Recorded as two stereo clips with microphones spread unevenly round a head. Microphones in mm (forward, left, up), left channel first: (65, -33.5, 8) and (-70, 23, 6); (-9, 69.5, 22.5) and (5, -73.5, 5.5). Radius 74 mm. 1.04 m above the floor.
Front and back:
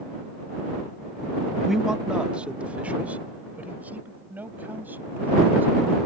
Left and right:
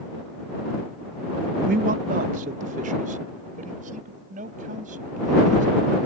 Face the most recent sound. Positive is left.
turn(degrees=-125)